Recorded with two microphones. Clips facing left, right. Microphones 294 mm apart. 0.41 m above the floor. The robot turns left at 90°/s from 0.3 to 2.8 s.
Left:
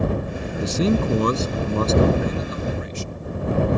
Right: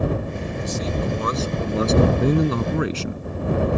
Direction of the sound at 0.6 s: 105° left.